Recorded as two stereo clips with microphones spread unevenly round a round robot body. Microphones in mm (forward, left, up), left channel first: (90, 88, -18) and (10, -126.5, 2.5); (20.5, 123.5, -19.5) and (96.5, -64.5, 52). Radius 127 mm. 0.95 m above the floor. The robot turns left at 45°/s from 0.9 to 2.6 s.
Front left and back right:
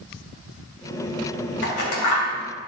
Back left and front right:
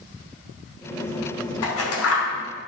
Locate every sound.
1.6 s scissors: 120° left, 2 m; by 2.3 s 85° left, 2 m